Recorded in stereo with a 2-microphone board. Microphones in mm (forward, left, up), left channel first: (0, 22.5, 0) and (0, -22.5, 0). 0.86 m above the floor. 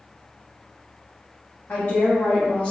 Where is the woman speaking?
40° left (ahead or behind), 1.7 m; by 2.7 s 25° left (ahead or behind), 1.3 m.